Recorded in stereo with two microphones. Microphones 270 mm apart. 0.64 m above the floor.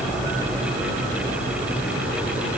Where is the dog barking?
No dog barking in this recording.